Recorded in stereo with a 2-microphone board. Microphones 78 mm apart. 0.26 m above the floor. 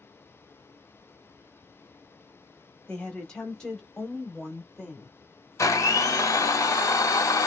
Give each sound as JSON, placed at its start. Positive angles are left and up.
{"t": 2.9, "sound": "a woman speaking", "side_deg": 10, "distance_m": 1.3}
{"t": 5.6, "sound": "a blender", "side_deg": 45, "distance_m": 0.7}